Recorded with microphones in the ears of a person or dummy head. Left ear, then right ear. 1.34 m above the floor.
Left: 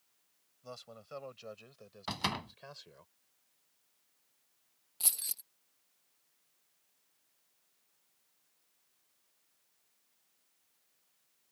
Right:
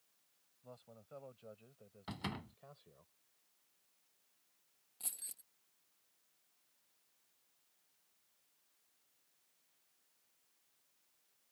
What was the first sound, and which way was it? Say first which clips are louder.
A man speaking: left 9 dB; 65° left (ahead or behind).